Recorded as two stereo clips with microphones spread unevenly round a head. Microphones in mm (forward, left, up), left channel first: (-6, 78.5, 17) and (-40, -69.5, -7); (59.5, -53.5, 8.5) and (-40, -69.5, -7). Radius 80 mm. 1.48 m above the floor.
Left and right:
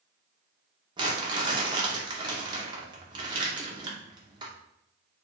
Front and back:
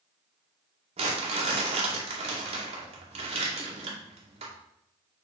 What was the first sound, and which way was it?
Crumpling, 165° right.